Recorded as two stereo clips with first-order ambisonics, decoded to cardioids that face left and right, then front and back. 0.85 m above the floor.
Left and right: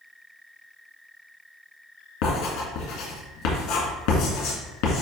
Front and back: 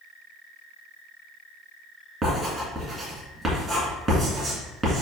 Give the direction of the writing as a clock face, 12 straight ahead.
9 o'clock.